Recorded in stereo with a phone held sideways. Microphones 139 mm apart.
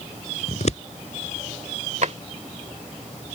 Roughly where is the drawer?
Right.